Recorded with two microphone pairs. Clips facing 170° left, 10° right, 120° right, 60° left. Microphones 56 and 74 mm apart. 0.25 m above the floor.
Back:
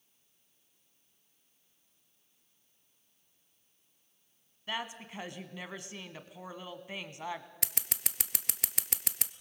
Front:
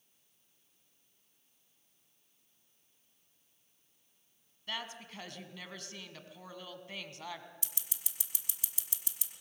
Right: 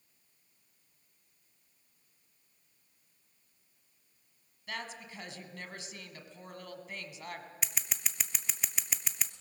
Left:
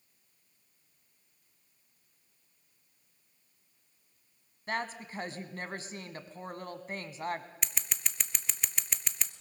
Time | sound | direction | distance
4.7 | a woman speaking | 105° left | 1.6 m
7.6 | scissors | 155° left | 0.7 m